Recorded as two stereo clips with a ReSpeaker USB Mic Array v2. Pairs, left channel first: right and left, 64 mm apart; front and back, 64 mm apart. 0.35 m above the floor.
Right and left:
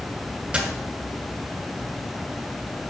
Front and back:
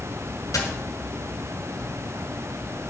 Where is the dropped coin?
20° left, 2.0 m.